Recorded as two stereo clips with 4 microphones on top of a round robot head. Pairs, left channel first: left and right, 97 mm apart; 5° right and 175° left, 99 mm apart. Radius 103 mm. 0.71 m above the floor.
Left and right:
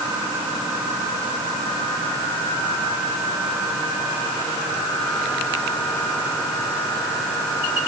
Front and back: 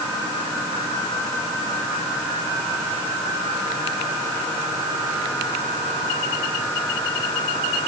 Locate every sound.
Only background noise.